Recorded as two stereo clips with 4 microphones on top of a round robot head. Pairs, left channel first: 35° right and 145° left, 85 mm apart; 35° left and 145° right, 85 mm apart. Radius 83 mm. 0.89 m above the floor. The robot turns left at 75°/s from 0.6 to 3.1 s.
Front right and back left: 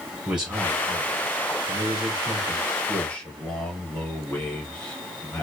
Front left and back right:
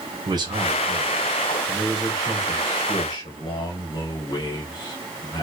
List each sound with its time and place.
0.3 s a man speaking: 135° right, 1.0 m; by 5.4 s 40° left, 1.0 m